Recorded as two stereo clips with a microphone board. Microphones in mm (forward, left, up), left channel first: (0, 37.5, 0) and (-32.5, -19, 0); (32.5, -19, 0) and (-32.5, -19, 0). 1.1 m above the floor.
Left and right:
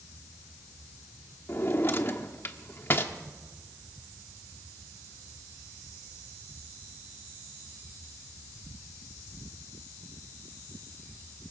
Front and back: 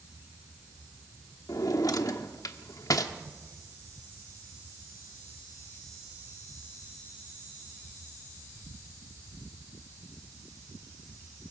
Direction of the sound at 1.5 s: 10° left.